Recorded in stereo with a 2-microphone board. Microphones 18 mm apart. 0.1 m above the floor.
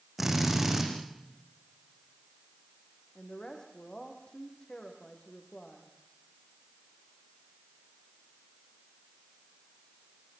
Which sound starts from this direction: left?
A woman speaking, at 3.1 s.